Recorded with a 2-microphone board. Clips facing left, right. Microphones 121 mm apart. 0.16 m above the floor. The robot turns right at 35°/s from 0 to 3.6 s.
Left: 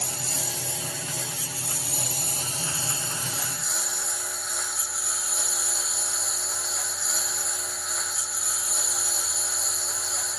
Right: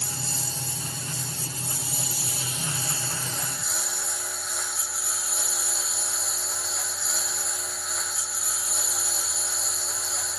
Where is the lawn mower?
55° left; by 10.4 s straight behind.